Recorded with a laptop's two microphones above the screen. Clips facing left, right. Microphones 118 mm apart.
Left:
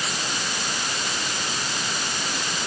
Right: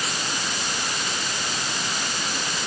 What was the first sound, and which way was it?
Only background noise.